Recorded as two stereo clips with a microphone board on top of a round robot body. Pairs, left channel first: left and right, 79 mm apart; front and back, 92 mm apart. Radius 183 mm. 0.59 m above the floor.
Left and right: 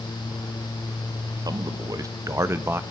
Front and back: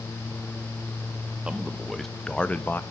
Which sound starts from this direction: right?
A man speaking, at 1.4 s.